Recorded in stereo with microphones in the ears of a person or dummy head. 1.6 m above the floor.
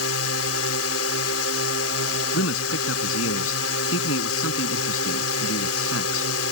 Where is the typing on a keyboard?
I don't hear typing on a keyboard.